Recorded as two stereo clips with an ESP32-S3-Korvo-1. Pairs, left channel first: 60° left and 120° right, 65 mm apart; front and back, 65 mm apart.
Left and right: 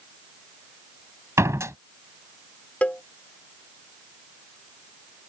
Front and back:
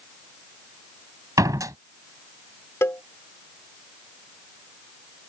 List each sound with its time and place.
1.4 s a door slam: 160° right
2.8 s a cowbell: 5° left